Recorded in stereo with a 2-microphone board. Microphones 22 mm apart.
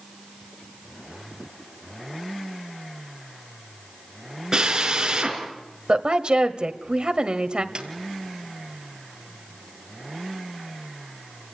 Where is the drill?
25° right (ahead or behind), 5.5 m.